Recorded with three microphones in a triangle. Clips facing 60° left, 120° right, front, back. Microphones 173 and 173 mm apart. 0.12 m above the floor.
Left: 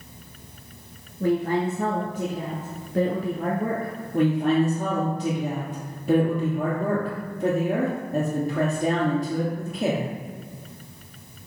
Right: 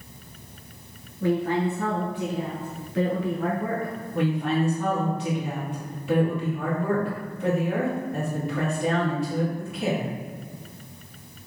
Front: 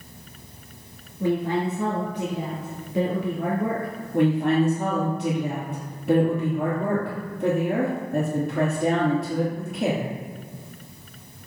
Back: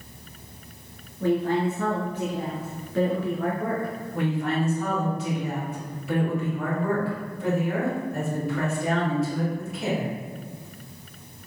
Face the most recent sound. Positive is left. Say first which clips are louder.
# left 5 dB, front 7 dB
turn(degrees=25)